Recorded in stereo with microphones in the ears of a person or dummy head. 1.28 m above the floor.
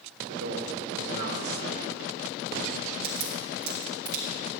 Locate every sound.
0.3 s a man speaking: 85° right, 1.6 m
3.0 s a crack: 55° right (ahead or behind), 1.7 m